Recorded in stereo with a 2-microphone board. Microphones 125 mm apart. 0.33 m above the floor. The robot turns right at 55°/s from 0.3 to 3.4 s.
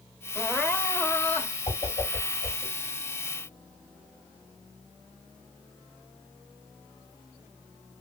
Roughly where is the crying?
Centre.